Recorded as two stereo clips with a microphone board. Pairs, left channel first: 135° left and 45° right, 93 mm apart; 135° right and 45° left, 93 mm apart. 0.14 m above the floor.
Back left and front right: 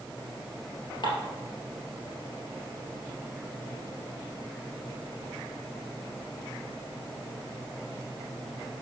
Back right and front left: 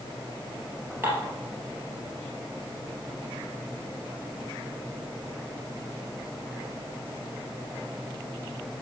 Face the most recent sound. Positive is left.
turn(degrees=110)